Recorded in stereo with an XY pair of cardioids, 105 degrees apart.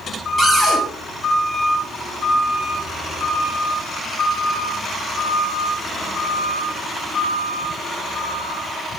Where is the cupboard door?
5° right, 1.8 m.